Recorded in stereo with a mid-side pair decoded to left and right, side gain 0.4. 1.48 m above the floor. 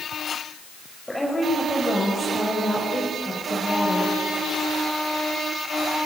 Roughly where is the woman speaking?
Ahead.